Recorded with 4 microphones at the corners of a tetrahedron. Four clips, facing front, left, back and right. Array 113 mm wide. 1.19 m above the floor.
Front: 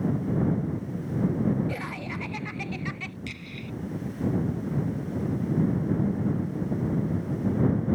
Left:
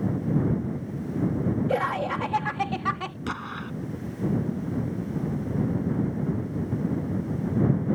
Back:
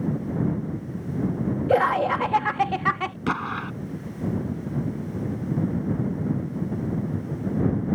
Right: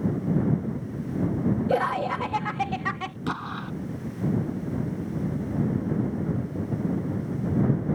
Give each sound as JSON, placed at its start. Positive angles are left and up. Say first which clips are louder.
{"t": 1.7, "sound": "laughter", "louder": "right 1 dB, back 14 dB", "azimuth_deg": -170}
{"t": 3.3, "sound": "an explosion", "louder": "right 3 dB, back 12 dB", "azimuth_deg": -170}